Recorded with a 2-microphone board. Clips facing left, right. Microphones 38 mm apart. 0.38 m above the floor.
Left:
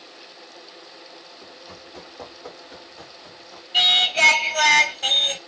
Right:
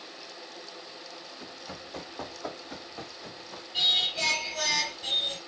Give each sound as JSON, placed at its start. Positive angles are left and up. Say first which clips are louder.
{"t": 1.4, "sound": "running footsteps", "louder": "even", "side_deg": -85, "distance_m": 4.5}
{"t": 3.7, "sound": "singing", "louder": "left 9 dB", "side_deg": 75, "distance_m": 0.7}